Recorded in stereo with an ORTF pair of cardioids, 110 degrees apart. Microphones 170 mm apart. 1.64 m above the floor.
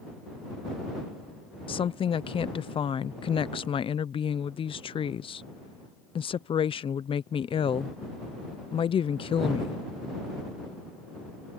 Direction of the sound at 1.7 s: 30° left.